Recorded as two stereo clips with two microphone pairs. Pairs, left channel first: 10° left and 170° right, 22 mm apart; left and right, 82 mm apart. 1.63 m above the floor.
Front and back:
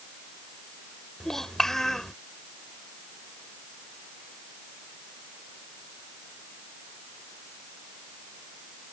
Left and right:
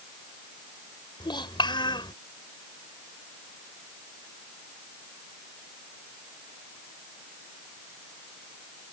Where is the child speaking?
80° left.